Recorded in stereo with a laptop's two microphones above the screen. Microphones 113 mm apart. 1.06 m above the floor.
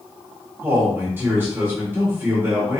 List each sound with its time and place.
0.6 s a man speaking: 20° right (ahead or behind), 1.0 m